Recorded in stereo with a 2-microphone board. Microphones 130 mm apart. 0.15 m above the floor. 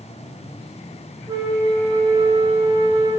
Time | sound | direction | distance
1.3 | a flute | 35° right (ahead or behind) | 1.0 m